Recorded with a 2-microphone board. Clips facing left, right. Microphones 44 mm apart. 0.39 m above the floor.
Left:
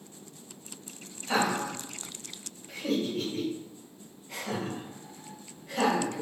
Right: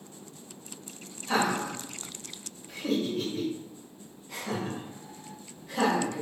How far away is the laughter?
About 2.0 m.